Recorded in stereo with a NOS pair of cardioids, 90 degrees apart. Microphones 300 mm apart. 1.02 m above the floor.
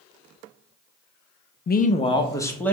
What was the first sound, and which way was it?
A man speaking, 35° left.